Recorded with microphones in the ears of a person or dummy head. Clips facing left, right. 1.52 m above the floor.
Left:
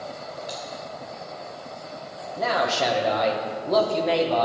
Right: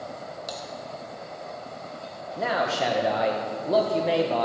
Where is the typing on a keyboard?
60° right (ahead or behind), 3 m.